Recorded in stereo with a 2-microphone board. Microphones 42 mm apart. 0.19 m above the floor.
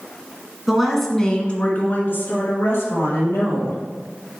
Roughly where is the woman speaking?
Centre.